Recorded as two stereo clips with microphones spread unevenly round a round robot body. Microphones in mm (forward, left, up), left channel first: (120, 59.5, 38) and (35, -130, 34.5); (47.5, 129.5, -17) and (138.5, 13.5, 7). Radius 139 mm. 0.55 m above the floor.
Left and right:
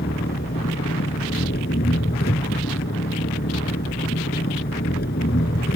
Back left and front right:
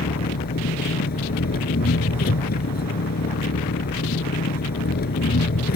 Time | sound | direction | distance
0.0 | an engine running | 120° left | ?